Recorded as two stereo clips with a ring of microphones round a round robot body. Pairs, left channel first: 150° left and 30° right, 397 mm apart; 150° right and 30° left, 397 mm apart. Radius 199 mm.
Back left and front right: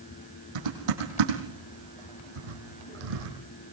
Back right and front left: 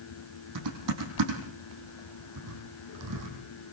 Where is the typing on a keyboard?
15° right, 6.5 m.